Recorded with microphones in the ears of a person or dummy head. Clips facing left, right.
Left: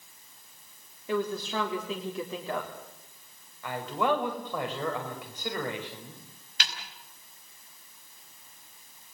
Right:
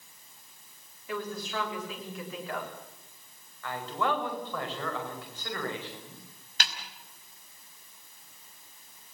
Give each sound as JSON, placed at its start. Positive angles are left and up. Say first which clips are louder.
{"t": 1.1, "sound": "a woman speaking", "louder": "left 5 dB", "side_deg": 20, "distance_m": 3.5}
{"t": 3.6, "sound": "a man speaking", "louder": "left 3 dB", "side_deg": 5, "distance_m": 5.0}
{"t": 6.6, "sound": "a snare drum", "louder": "right 2 dB", "side_deg": -35, "distance_m": 5.5}